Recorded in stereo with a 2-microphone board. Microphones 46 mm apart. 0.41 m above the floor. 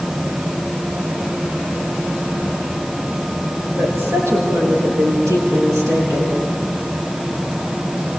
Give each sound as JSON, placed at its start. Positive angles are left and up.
{"t": 3.8, "sound": "a woman speaking", "side_deg": -80, "distance_m": 9.0}